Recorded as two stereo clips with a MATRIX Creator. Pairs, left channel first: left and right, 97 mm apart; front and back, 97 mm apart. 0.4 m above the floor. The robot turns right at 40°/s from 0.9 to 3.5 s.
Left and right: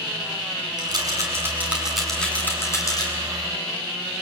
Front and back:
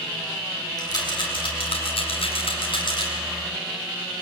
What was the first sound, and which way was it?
A rattle, 45° right.